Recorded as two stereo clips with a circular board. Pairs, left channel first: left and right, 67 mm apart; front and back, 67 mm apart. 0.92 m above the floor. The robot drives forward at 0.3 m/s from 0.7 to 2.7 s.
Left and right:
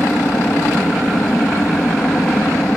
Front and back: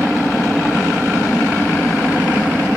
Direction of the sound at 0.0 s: 90° left.